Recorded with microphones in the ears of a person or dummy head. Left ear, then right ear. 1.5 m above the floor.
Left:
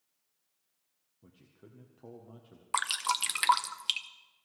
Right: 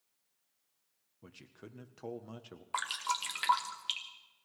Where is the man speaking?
65° right (ahead or behind), 0.8 m.